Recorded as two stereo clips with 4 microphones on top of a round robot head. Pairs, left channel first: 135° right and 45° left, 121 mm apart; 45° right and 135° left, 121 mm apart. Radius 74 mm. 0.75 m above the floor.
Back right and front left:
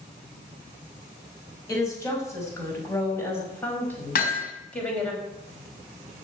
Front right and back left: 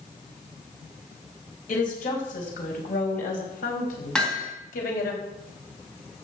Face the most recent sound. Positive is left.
turn(degrees=-130)